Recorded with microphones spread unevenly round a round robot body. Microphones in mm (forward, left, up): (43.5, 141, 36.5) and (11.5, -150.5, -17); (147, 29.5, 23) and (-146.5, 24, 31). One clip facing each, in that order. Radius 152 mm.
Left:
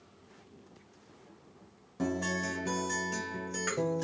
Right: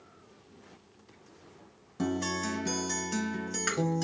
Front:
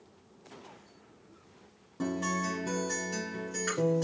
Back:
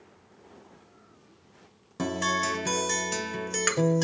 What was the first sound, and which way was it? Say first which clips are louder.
A guitar: right 2 dB, back 2 dB; 175° right.